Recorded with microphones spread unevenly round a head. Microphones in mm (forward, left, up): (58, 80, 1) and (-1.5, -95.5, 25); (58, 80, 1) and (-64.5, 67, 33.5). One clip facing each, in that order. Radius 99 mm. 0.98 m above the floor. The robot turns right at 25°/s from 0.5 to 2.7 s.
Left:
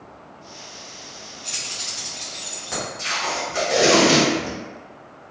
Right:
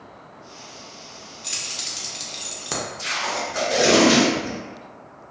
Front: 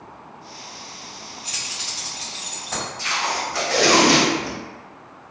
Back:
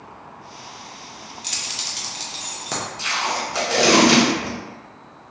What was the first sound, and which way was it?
Keys jangling, 175° right.